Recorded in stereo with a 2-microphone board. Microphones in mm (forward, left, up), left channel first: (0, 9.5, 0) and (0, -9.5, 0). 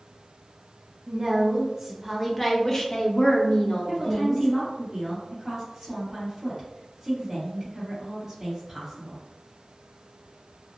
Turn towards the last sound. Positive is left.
turn(degrees=-20)  # may be behind; listen again after turning